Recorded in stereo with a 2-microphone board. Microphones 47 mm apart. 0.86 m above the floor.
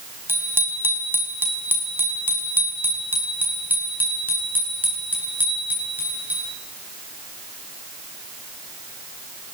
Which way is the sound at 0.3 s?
50° right (ahead or behind).